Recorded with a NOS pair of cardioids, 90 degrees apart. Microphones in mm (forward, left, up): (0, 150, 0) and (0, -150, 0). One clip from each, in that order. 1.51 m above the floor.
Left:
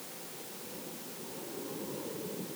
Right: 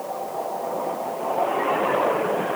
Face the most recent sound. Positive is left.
No sound to turn to.